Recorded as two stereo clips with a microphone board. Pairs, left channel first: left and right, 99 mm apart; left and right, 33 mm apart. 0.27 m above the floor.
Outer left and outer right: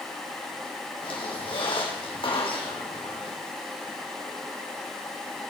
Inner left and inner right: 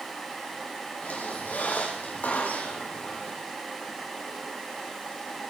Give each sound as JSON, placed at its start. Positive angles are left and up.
{"t": 1.0, "sound": "a squeak", "side_deg": 60, "distance_m": 4.5}